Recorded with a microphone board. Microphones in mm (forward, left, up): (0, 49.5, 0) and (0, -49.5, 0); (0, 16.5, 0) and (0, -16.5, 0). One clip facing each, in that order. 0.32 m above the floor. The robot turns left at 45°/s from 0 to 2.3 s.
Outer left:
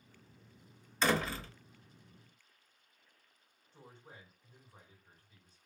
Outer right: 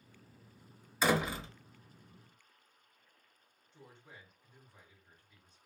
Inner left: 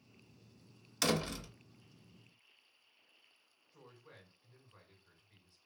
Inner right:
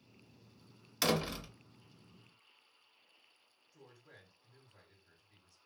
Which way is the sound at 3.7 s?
35° left (ahead or behind).